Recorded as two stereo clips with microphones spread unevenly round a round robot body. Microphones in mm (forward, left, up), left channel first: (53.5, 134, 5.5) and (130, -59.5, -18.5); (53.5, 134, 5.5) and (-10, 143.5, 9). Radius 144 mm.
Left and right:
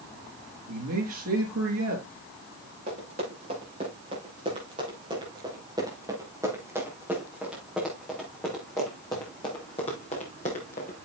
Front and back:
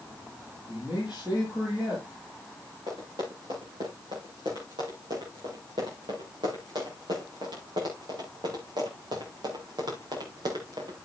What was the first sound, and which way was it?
A man speaking, 105° right.